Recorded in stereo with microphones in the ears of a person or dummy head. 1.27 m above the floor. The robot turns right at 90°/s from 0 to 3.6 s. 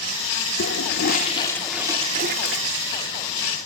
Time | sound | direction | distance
0.6 | a toilet flushing | 75° left | 1.3 m